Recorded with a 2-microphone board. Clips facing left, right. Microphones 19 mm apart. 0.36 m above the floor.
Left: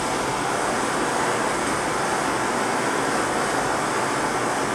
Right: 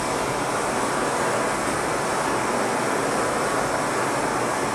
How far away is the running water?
About 1.5 m.